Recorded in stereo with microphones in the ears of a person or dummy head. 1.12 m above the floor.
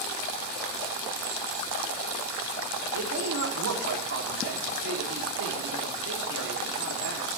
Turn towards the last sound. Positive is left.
turn(degrees=-65)  # may be behind; listen again after turning